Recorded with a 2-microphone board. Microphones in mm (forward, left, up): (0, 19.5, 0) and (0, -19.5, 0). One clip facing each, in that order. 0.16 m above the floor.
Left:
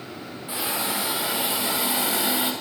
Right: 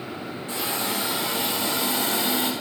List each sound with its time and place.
0.5 s a hiss: 15° left (ahead or behind), 8.5 m